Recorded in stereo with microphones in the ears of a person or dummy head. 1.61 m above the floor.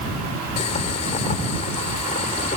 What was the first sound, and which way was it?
Boiling, 35° left (ahead or behind).